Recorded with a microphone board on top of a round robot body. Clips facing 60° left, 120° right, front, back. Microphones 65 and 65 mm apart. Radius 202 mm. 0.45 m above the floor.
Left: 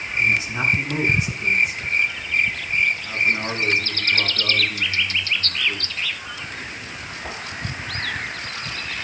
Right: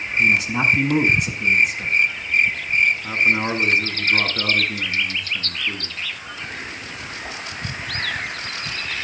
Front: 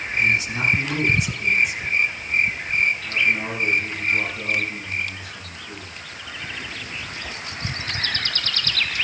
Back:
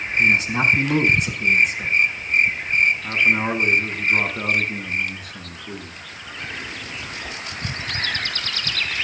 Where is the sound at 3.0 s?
150° right, 7 m.